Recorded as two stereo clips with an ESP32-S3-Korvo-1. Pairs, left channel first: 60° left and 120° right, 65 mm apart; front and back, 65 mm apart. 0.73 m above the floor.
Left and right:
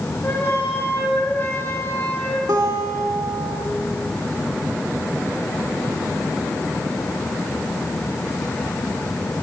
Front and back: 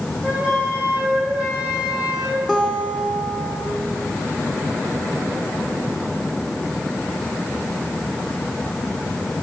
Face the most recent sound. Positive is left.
turn(degrees=-95)